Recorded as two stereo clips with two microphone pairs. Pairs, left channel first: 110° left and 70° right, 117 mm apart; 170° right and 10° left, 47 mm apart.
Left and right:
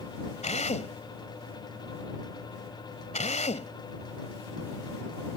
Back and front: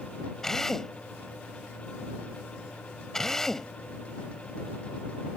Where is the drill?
110° left.